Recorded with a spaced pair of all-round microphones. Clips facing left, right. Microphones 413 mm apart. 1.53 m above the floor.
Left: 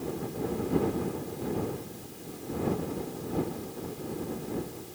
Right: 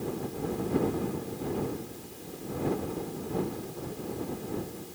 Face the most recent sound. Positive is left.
No sound to turn to.